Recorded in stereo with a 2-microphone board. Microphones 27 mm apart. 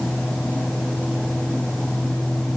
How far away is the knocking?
No knocking in this recording.